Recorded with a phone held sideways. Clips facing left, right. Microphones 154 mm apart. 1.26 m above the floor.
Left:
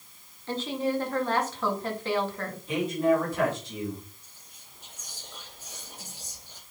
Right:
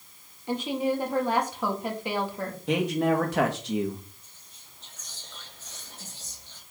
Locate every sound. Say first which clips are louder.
0.5 s a woman speaking: right 2 dB; 15° right (ahead or behind), 2.5 m
2.7 s a man speaking: even; 75° right (ahead or behind), 2.5 m
4.2 s whispering: left 1 dB; 10° left (ahead or behind), 3.5 m